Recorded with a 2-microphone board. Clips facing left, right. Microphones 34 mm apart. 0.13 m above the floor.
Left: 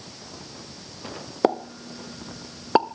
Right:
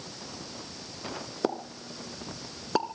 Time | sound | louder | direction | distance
1.4 | a pop | left 9 dB | 30° left (ahead or behind) | 0.6 m